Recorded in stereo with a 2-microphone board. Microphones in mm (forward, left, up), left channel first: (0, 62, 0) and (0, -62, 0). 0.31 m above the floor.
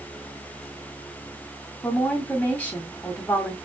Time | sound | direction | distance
1.8 | a woman speaking | 15° left (ahead or behind) | 1.8 m